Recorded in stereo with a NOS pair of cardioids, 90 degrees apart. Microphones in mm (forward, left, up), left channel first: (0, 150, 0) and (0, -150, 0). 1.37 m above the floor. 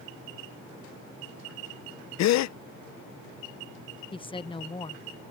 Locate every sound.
2.2 s a gasp: 65° left
4.1 s a woman speaking: 20° left